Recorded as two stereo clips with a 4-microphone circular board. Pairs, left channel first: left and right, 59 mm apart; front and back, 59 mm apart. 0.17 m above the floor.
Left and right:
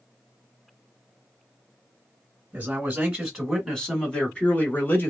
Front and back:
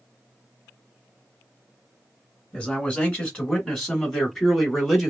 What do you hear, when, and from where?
2.5 s a man speaking: 65° right, 1.2 m; by 5.1 s 90° left, 1.4 m